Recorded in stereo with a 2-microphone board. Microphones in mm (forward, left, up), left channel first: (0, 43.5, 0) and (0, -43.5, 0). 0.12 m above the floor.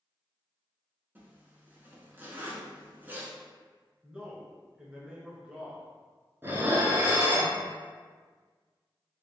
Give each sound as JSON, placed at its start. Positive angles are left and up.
{"t": 1.1, "sound": "a zipper", "side_deg": -25, "distance_m": 0.8}
{"t": 4.0, "sound": "a man speaking", "side_deg": -10, "distance_m": 1.2}
{"t": 6.4, "sound": "dishes clattering", "side_deg": -25, "distance_m": 0.9}